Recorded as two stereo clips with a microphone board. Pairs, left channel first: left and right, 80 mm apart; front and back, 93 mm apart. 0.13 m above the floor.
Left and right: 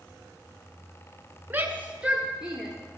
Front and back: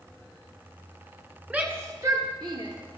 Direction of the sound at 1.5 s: 125° right.